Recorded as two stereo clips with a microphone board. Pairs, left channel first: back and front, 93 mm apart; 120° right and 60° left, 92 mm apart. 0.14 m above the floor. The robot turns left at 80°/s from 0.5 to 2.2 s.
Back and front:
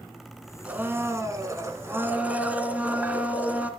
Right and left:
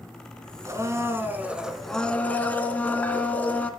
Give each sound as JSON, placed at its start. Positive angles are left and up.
{"t": 0.7, "sound": "a blender", "azimuth_deg": 65, "distance_m": 1.9}